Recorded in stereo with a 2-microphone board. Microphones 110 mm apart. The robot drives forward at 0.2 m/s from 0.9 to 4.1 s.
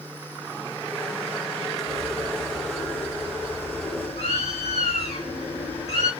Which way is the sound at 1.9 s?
80° left.